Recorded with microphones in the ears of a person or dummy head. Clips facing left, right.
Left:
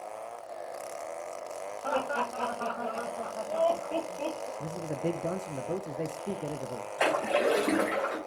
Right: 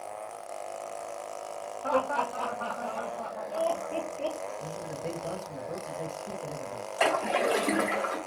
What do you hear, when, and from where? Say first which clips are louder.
1.8 s laughter: right 3 dB; 10° left (ahead or behind), 1.3 m; by 4.5 s 50° left (ahead or behind), 2 m
4.6 s a man speaking: left 3 dB; 40° left (ahead or behind), 0.5 m
7.0 s a splash: even; 5° left (ahead or behind), 2.5 m